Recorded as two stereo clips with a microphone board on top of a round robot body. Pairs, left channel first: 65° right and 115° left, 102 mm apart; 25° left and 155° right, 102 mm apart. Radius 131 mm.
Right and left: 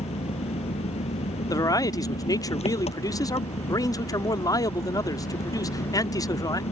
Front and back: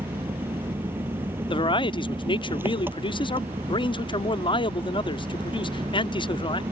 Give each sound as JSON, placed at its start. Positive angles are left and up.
{"t": 0.0, "sound": "an engine running", "azimuth_deg": -85}
{"t": 1.5, "sound": "a man speaking", "azimuth_deg": -15}